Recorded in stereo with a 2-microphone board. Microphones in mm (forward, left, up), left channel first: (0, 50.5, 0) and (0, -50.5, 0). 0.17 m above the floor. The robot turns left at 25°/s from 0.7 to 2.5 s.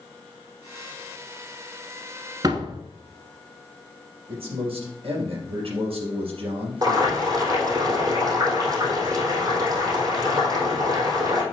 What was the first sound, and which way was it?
A door slam, 45° right (ahead or behind).